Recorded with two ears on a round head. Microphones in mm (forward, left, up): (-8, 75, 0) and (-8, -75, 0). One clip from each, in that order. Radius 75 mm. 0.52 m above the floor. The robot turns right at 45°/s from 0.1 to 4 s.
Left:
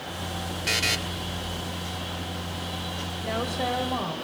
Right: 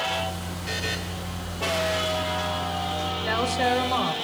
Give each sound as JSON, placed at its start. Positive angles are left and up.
{"t": 0.7, "sound": "a buzzer", "side_deg": 60, "distance_m": 1.6}
{"t": 3.2, "sound": "a woman speaking", "azimuth_deg": -60, "distance_m": 3.0}